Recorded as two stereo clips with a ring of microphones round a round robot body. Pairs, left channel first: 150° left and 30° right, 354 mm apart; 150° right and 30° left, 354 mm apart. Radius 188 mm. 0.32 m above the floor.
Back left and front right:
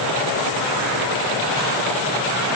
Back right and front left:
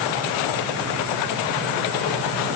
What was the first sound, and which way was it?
Only background noise.